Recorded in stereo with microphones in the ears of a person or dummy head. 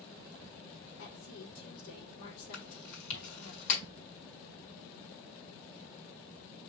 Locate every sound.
1.0 s a woman speaking: 85° left, 4 m
2.5 s chewing: 70° left (ahead or behind), 4.5 m